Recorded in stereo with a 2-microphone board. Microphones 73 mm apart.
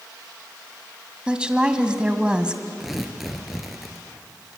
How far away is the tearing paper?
About 2.5 m.